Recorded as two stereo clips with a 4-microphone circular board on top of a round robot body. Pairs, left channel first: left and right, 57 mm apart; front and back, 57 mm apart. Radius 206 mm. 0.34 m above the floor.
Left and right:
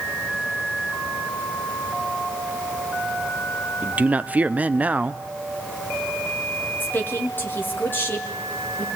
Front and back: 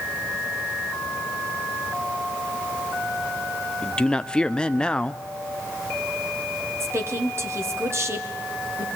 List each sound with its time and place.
3.8 s a man speaking: 55° right, 1.1 m
6.8 s a woman speaking: 145° left, 3.5 m